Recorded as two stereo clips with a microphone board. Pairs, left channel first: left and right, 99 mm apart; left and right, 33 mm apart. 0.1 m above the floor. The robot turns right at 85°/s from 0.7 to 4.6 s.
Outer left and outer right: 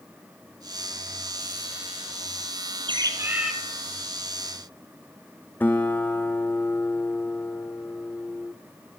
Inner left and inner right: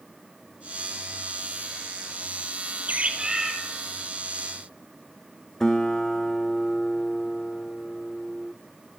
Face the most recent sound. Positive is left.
turn(degrees=20)  # may be behind; listen again after turning